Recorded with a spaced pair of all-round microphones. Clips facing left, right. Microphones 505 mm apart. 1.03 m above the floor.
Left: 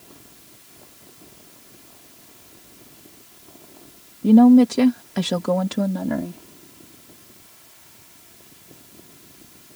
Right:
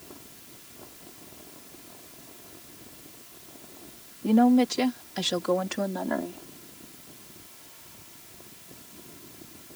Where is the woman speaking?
55° left (ahead or behind); by 6.4 s 40° left (ahead or behind).